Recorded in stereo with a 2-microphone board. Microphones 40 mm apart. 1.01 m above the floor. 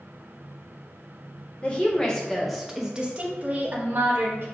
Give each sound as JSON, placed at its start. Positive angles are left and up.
{"t": 1.6, "sound": "a woman speaking", "side_deg": 25, "distance_m": 1.3}